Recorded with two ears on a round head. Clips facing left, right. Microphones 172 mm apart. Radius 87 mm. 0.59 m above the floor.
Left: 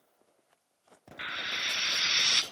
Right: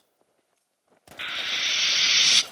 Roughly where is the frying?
Right.